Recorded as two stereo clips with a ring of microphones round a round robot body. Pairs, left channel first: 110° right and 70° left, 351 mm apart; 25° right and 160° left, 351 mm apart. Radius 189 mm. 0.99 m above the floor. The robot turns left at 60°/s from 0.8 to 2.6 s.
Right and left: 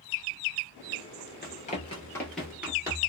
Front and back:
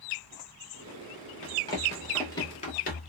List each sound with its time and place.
1.4 s running footsteps: 70° right, 1.0 m; by 3.1 s 5° left, 1.0 m